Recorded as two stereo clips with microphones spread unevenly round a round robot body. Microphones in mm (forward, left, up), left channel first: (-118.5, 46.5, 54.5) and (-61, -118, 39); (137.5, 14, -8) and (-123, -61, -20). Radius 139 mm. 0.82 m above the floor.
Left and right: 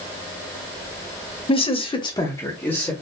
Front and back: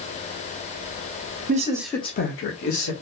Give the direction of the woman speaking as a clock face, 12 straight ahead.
7 o'clock.